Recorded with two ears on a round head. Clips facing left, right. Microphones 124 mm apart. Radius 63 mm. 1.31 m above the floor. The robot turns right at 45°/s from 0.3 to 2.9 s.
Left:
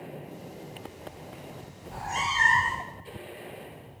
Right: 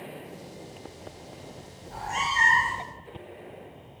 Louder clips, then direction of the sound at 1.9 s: Right 1 dB; 165° left.